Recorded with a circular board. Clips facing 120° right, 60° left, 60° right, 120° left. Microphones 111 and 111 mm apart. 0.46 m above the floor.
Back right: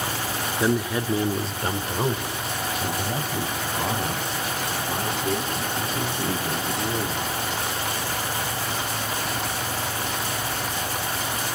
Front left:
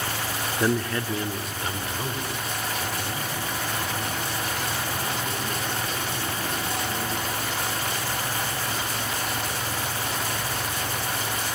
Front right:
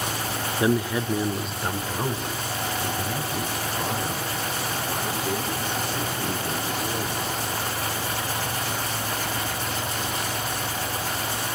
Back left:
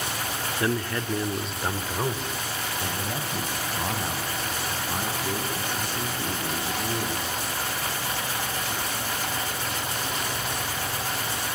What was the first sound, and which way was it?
A man speaking, 35° right.